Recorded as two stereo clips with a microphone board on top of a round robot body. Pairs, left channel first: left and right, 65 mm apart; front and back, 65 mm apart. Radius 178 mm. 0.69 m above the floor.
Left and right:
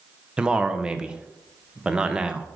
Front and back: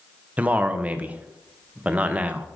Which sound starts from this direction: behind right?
A man speaking, at 0.4 s.